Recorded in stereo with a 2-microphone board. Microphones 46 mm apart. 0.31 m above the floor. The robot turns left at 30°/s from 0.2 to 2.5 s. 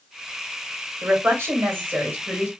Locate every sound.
1.0 s a woman speaking: 90° right, 2.5 m; by 2.5 s 135° right, 2.5 m